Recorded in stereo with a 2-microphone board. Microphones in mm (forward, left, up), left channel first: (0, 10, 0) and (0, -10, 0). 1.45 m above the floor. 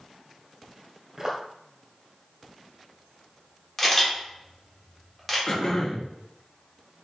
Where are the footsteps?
20° right (ahead or behind), 1.5 m.